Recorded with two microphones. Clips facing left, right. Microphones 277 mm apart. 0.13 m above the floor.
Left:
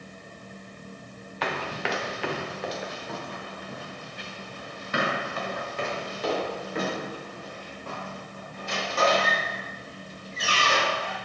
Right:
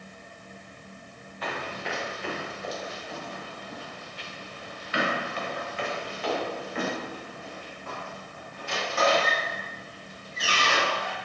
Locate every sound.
1.4 s running footsteps: 80° left, 1.1 m; by 11.2 s 40° left (ahead or behind), 5.5 m